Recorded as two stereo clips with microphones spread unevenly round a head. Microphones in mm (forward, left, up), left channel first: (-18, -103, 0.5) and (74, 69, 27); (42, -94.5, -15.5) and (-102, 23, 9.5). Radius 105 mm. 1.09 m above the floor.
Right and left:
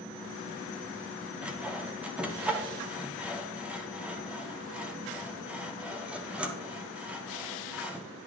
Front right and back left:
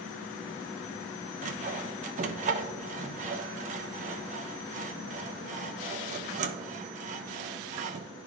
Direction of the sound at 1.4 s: 155° left.